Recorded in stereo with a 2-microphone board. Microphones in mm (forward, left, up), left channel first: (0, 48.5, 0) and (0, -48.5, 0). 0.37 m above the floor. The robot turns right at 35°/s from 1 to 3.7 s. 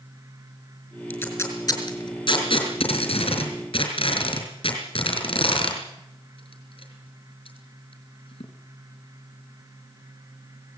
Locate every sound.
1.1 s tape being pulled: 20° left (ahead or behind), 5 m; by 8.4 s 65° left (ahead or behind), 5 m